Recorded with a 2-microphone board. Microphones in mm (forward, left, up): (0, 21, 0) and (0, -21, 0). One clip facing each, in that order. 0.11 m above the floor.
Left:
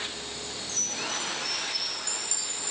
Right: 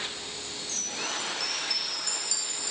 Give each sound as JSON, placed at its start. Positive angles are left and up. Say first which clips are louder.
{"t": 0.7, "sound": "a chime", "louder": "even", "side_deg": 35, "distance_m": 3.0}